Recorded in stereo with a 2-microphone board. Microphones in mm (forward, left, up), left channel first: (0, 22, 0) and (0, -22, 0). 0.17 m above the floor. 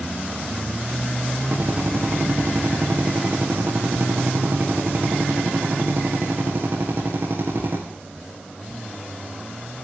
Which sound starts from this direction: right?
A drill, at 1.5 s.